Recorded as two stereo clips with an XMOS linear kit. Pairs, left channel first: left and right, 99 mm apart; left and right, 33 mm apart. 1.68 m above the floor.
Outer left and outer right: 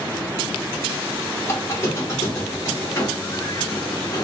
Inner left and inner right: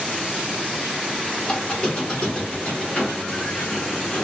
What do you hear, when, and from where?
1.4 s a squeak: 25° left (ahead or behind), 1.2 m